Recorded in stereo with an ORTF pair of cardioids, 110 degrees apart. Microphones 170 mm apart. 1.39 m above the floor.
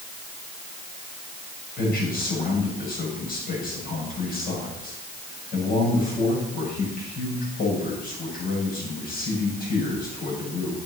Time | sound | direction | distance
1.8 | a man speaking | 55° left | 6.5 m